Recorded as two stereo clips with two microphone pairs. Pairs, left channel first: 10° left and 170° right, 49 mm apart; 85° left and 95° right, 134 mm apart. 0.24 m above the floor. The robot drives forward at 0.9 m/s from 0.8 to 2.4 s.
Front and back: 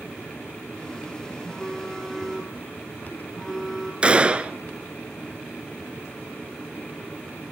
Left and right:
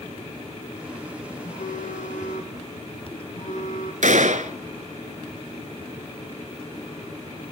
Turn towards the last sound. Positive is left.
turn(degrees=-105)